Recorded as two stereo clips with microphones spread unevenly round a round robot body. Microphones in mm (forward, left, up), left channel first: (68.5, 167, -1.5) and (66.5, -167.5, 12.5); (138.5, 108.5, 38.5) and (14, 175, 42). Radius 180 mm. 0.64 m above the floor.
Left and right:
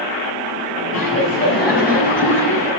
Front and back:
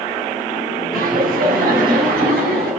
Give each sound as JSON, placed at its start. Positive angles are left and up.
{"t": 0.9, "sound": "laughter", "azimuth_deg": 155, "distance_m": 4.0}